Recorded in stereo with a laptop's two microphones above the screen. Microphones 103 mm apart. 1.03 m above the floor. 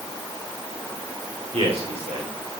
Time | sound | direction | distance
1.5 | a man speaking | 85° right | 4 m